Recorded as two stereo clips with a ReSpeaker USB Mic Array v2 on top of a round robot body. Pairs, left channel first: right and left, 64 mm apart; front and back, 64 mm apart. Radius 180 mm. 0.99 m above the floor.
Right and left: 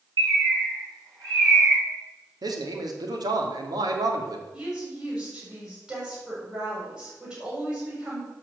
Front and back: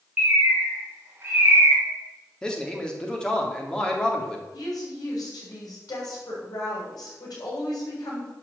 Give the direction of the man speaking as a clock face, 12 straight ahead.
9 o'clock.